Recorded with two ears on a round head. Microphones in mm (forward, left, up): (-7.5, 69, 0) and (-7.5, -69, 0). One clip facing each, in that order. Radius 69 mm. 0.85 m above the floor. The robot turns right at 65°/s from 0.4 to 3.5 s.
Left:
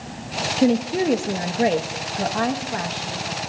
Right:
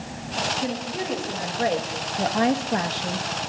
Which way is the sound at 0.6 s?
80° left.